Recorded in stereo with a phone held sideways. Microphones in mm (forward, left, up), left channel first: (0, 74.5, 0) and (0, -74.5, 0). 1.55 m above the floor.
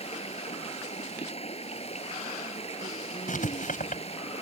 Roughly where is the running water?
Left.